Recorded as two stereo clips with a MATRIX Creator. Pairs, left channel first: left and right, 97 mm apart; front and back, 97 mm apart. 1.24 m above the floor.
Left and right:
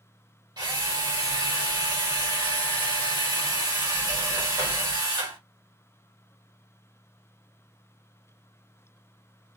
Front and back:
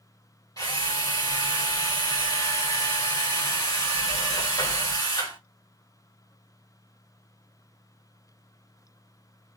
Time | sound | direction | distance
0.6 | a drill | 50° right | 2.5 m